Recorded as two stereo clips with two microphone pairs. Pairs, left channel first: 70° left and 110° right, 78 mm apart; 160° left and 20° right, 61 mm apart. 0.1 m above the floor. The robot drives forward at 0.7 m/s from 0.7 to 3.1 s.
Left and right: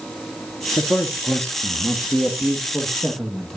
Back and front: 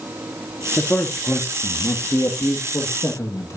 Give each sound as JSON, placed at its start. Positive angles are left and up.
{"t": 0.8, "sound": "a man speaking", "azimuth_deg": 110, "distance_m": 1.4}